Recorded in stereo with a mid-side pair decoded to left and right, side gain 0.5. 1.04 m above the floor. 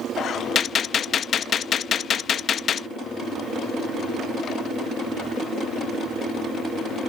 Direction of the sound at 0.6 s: 50° left.